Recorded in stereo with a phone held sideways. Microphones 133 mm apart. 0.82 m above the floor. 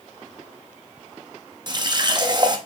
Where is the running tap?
35° right (ahead or behind), 0.5 m.